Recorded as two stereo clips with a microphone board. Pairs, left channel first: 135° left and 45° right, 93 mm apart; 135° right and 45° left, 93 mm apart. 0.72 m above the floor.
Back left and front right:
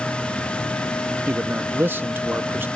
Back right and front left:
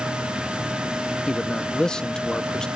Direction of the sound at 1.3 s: 65° right.